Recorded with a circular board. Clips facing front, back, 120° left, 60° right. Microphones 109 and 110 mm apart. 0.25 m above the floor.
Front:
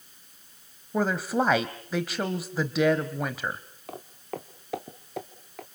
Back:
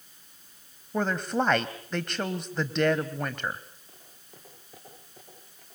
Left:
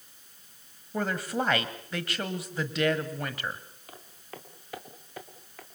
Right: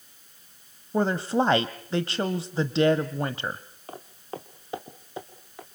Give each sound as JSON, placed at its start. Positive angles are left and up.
{"t": 0.9, "sound": "a woman speaking", "azimuth_deg": -80, "distance_m": 1.0}
{"t": 3.9, "sound": "footsteps", "azimuth_deg": -5, "distance_m": 1.9}